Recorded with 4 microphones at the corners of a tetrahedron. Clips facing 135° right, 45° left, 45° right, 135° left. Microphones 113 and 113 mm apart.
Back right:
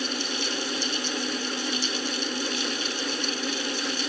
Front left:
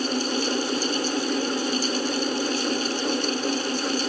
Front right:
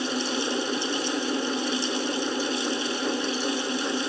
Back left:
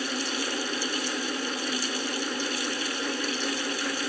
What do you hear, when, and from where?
Only background noise.